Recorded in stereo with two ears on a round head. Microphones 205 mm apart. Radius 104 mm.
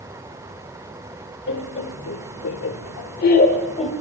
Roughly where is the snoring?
No snoring in this recording.